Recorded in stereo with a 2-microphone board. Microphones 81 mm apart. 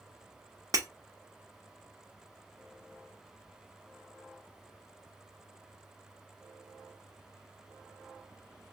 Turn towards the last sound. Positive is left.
turn(degrees=-45)  # may be behind; listen again after turning